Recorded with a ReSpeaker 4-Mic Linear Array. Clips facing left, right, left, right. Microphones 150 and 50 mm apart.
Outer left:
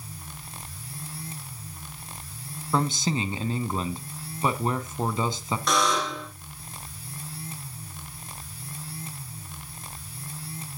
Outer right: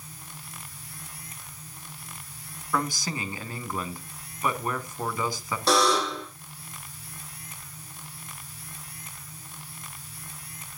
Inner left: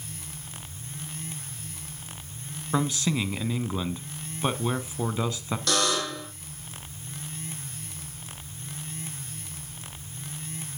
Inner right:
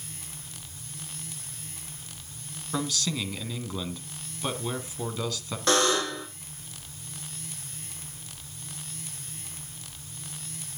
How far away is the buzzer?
About 6 m.